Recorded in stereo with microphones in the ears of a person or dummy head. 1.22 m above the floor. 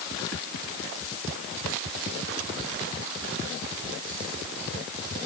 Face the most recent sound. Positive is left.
No sound to turn to.